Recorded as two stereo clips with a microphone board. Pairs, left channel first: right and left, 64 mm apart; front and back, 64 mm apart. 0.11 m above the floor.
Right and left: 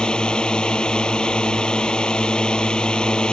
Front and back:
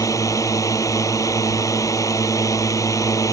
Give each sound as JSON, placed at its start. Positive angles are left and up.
{"t": 0.0, "sound": "a drone", "azimuth_deg": -15}